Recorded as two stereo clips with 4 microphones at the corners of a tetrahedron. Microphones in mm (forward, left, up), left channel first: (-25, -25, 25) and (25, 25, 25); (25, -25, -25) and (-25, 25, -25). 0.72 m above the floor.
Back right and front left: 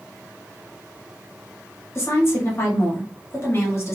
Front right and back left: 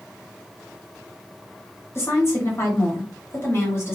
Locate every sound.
1.9 s a woman speaking: 90° right, 1.3 m